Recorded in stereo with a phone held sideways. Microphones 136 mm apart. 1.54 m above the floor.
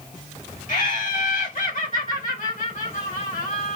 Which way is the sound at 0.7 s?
75° left (ahead or behind).